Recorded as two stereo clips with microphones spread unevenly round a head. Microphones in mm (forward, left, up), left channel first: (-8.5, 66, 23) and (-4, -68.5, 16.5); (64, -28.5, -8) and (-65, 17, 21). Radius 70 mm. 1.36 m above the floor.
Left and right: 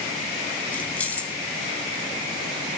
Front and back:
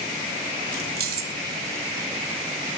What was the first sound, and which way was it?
Keys jangling, 170° left.